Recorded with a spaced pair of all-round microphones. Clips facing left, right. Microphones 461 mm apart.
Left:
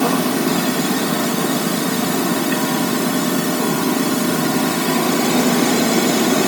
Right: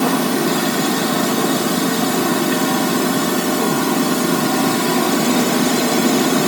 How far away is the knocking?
No knocking in this recording.